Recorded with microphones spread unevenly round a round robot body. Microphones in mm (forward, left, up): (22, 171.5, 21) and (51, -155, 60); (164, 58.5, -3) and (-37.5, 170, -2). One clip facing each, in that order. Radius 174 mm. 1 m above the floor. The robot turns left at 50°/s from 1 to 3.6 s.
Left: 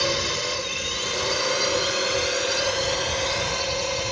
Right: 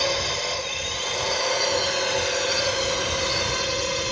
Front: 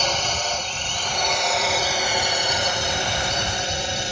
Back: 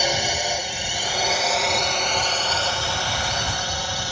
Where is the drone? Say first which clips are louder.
Even, back 2 dB; 90° left; by 4.1 s 40° right.